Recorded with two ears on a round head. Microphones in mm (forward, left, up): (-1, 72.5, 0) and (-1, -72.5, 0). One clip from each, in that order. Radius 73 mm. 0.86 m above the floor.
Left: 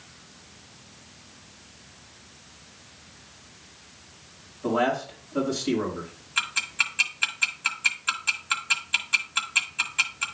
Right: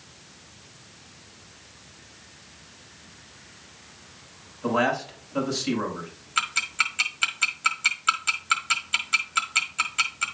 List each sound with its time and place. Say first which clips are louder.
4.6 s a man speaking: right 1 dB; 75° right (ahead or behind), 4.5 m
6.4 s ticking: right 1 dB; 10° right (ahead or behind), 1.6 m